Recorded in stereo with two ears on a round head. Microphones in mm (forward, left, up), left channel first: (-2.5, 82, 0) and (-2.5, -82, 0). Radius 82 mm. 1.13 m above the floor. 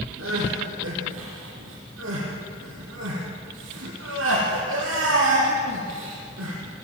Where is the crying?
80° right, 6.5 m.